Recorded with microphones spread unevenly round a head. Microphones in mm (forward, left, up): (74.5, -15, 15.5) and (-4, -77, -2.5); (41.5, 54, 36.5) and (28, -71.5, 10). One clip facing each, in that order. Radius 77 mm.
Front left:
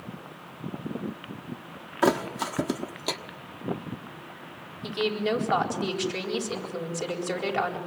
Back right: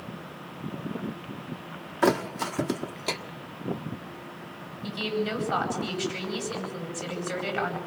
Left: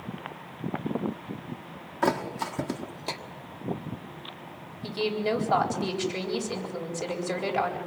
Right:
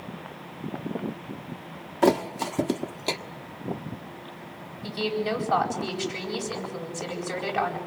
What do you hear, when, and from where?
2.0 s a thud: 25° right, 1.3 m
4.8 s a woman speaking: 20° left, 8 m